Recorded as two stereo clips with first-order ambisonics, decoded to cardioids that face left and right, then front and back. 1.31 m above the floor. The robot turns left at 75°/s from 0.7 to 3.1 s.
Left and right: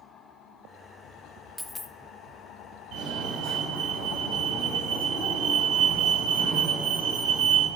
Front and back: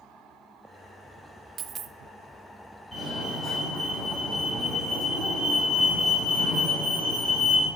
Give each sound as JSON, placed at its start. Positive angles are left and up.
{"t": 1.6, "sound": "a dropped coin", "azimuth_deg": 175, "distance_m": 0.7}
{"t": 2.9, "sound": "a fire alarm", "azimuth_deg": -85, "distance_m": 5.0}